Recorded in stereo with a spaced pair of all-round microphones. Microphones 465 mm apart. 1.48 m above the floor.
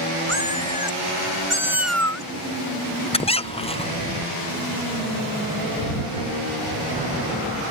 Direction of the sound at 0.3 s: 80° right.